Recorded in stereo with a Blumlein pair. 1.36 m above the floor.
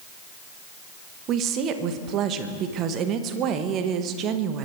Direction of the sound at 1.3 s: 35° right.